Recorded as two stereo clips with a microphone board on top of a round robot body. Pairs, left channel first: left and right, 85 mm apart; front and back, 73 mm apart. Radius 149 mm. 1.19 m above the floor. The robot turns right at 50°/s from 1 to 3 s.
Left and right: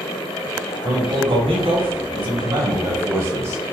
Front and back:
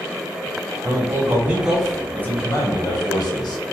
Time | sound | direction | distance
0.8 | a man speaking | 130° right | 0.9 m